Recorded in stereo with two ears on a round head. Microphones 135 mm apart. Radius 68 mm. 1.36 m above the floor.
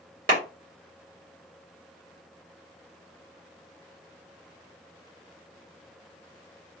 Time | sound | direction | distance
0.3 | a clap | 65° right (ahead or behind) | 1.6 m